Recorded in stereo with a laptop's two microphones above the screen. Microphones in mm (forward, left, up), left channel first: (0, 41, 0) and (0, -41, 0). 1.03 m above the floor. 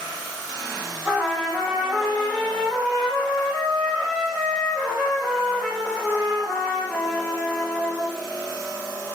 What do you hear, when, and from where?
1.1 s a trumpet: centre (ahead or behind), 0.9 m